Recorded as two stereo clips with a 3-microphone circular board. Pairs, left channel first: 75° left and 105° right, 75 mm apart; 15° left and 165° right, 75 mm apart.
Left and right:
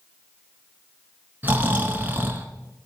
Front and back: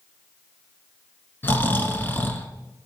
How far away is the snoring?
About 0.9 m.